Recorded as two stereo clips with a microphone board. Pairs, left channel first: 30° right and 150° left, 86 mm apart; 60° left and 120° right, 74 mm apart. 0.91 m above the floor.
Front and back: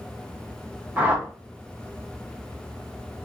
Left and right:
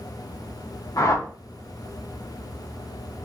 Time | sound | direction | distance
1.0 | a whoosh | 80° left | 0.7 m